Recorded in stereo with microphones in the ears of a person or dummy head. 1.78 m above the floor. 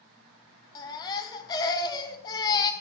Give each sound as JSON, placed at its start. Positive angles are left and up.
{"t": 0.8, "sound": "a baby crying", "side_deg": 25, "distance_m": 1.1}